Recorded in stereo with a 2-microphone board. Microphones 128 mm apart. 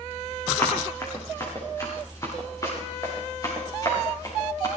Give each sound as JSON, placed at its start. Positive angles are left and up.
{"t": 0.6, "sound": "running footsteps", "side_deg": 20, "distance_m": 6.5}